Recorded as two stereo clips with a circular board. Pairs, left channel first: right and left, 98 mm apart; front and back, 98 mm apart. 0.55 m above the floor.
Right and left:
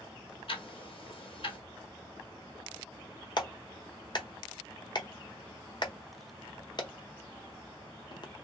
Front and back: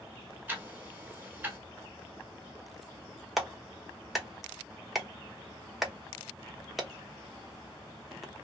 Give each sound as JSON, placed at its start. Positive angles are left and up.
{"t": 0.5, "sound": "ticking", "azimuth_deg": -110, "distance_m": 1.2}
{"t": 3.4, "sound": "a clap", "azimuth_deg": -90, "distance_m": 0.8}